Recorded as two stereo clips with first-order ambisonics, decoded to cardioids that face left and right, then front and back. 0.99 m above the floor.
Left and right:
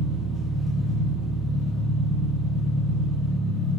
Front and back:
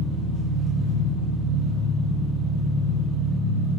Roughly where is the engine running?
Behind.